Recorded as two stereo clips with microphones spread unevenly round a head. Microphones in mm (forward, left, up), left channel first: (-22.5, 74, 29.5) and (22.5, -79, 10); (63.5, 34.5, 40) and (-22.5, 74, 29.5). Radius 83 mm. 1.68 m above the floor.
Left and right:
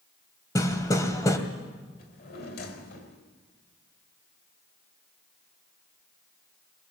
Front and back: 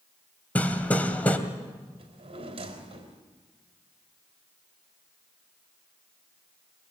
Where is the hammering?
40° left, 2.5 m.